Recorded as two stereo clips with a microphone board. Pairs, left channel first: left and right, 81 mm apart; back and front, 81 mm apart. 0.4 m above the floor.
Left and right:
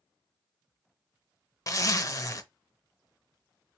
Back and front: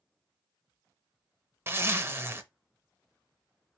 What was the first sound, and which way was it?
A zipper, 55° left.